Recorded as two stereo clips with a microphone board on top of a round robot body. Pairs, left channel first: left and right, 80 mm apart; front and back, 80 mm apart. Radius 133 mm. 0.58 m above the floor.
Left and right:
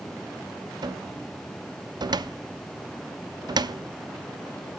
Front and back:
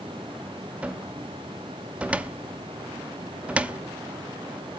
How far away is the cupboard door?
About 0.7 m.